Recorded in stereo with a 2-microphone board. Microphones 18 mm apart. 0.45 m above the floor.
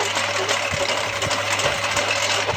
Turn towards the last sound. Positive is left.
turn(degrees=5)  # may be behind; listen again after turning